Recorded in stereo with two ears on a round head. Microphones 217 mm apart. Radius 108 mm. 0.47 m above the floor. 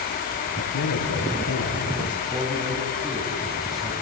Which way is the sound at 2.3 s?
Centre (ahead or behind).